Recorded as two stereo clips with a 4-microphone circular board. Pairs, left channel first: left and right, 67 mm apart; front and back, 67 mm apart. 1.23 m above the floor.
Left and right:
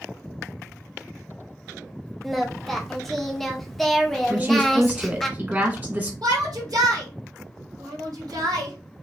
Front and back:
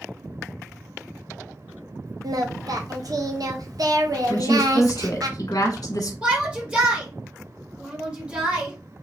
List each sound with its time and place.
2.2 s singing: 175° left, 0.6 m
4.3 s a woman speaking: 30° right, 1.3 m
6.2 s a shout: 110° right, 1.3 m